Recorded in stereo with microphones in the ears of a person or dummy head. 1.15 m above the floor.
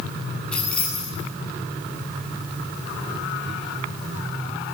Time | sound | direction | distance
0.5 | keys jangling | 5° left (ahead or behind) | 8 m